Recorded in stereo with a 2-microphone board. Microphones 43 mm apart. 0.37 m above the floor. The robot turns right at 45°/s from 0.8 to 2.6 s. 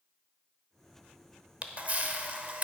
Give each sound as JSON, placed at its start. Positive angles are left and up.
{"t": 1.6, "sound": "a camera shutter", "side_deg": -35, "distance_m": 0.8}